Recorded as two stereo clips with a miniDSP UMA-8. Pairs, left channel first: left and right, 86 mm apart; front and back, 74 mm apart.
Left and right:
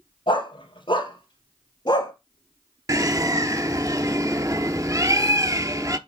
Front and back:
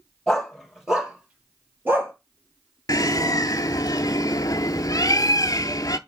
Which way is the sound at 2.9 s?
40° right.